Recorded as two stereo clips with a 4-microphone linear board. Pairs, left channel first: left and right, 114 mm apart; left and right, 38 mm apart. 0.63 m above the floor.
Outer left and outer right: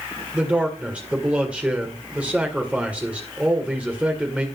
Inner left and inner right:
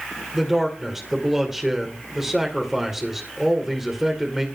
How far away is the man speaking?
About 2 m.